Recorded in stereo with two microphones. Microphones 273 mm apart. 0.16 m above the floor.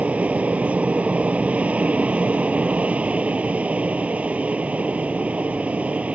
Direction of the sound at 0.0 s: 5° right (ahead or behind).